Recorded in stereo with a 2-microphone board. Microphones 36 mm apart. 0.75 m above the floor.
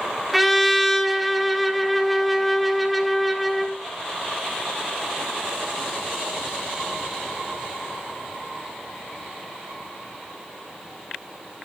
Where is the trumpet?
Centre (ahead or behind), 1.0 m.